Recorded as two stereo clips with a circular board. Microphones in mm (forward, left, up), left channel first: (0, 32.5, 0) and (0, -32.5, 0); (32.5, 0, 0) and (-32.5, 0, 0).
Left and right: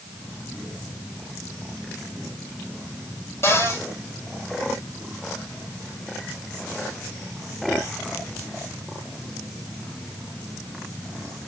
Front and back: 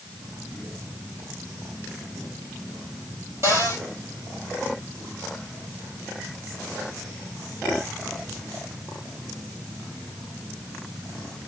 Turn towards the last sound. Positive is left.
turn(degrees=135)